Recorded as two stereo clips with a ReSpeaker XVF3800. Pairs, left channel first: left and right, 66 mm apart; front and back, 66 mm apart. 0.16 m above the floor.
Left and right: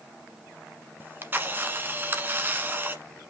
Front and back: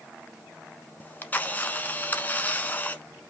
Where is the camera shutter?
50° right, 1.1 m.